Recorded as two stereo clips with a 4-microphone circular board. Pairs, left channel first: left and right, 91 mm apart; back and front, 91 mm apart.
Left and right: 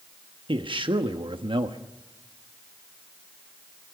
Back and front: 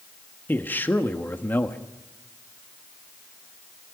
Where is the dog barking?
No dog barking in this recording.